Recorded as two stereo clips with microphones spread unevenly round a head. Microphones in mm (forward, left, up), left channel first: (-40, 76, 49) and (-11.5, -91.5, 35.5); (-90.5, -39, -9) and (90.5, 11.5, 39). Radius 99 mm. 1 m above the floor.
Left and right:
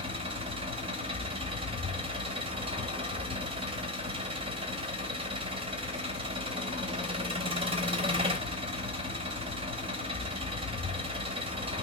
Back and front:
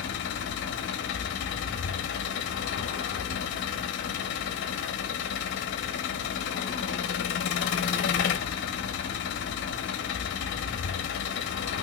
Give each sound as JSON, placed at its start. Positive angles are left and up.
{"t": 0.0, "sound": "an engine running", "azimuth_deg": -135, "distance_m": 0.7}